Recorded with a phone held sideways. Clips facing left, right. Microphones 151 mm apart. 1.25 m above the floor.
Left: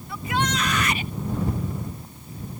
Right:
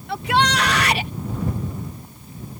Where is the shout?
75° right (ahead or behind).